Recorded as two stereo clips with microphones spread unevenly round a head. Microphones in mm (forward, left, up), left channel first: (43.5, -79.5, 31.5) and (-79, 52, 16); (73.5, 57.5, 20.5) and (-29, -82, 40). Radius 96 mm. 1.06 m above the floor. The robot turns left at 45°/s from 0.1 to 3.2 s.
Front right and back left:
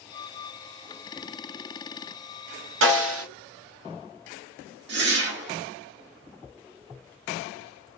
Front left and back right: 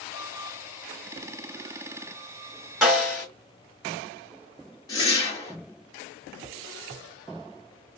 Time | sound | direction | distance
2.8 | a snare drum | 150° left | 2 m
4.9 | a whoosh | 120° left | 1.5 m